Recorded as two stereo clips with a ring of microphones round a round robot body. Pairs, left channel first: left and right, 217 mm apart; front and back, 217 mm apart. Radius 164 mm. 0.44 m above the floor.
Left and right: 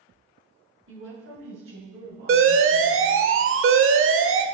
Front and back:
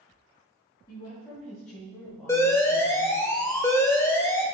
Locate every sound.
0.9 s a woman speaking: 80° right, 3.5 m; by 3.3 s 100° right, 2.5 m
2.3 s an alarm: 80° right, 0.9 m